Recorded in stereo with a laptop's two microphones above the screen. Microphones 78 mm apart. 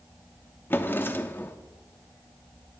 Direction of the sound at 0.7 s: 25° left (ahead or behind).